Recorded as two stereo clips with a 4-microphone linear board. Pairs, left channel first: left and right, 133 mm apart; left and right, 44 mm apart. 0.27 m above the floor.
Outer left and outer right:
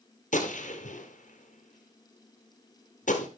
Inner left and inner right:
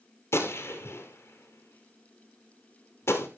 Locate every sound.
0.3 s a gunshot: 75° left (ahead or behind), 2 m